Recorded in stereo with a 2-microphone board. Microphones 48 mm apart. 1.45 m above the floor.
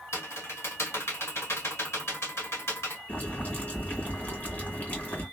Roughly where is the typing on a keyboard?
Left.